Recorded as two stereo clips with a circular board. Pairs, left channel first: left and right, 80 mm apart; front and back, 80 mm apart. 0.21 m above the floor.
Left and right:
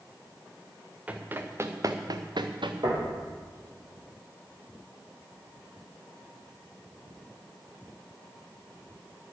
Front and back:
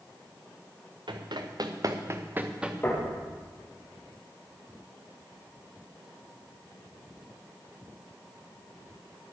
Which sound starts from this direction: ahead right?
Knocking, at 2.8 s.